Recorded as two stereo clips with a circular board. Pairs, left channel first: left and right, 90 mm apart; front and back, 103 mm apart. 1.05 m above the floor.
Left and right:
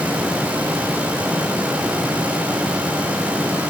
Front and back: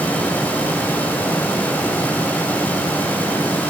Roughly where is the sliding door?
I don't hear a sliding door.